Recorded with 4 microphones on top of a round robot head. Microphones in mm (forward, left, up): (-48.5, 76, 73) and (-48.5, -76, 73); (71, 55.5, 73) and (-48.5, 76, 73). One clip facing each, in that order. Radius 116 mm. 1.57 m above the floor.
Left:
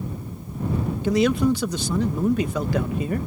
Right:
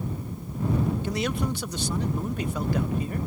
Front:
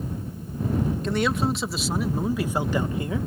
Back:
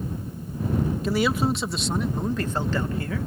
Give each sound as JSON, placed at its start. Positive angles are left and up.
{"t": 1.0, "sound": "a man speaking", "azimuth_deg": 85}